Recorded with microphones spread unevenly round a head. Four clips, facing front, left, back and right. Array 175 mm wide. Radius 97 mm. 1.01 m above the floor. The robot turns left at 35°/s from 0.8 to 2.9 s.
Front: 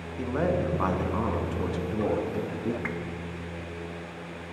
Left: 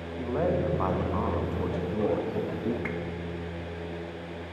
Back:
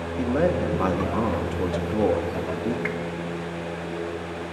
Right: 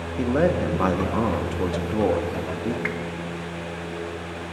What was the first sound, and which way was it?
A man speaking, 120° right.